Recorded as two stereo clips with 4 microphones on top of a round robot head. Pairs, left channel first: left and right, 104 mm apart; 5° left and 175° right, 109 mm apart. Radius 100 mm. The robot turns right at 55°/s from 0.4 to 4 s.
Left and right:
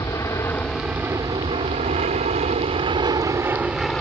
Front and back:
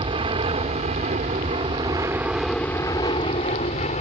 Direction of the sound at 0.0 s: 155° left.